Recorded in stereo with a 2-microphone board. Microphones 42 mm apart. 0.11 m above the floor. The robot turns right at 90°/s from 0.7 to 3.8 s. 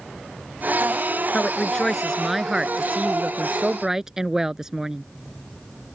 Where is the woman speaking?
20° left (ahead or behind); by 5.0 s 10° right (ahead or behind).